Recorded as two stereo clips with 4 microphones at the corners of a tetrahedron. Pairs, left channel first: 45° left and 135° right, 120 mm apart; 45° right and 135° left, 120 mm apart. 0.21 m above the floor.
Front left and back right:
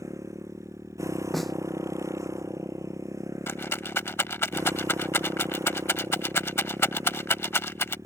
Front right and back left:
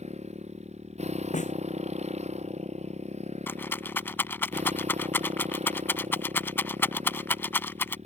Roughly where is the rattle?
Ahead.